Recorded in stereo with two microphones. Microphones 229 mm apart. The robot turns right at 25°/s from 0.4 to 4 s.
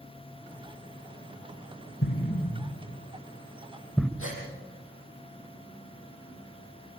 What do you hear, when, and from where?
2.0 s an explosion: 55° left (ahead or behind), 1.0 m; by 4.1 s 5° left (ahead or behind), 1.0 m
4.2 s a gasp: 65° left (ahead or behind), 6.5 m